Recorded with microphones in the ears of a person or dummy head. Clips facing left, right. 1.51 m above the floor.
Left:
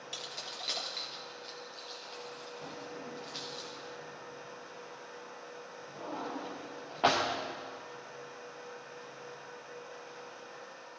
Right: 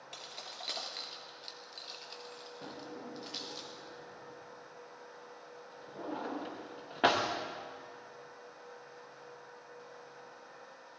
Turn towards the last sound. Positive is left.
turn(degrees=-15)  # may be behind; listen again after turning